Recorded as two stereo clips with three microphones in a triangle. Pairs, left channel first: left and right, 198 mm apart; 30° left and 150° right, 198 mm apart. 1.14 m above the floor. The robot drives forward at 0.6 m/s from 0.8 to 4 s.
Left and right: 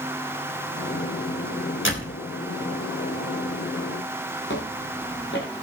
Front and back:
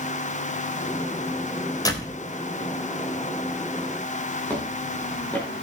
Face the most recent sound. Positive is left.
turn(degrees=110)